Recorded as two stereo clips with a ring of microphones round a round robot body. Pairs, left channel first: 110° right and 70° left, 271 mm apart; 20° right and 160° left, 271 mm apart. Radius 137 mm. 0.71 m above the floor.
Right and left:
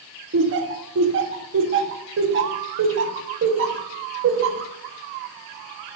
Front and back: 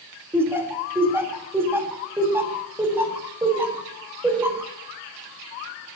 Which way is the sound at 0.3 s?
80° left.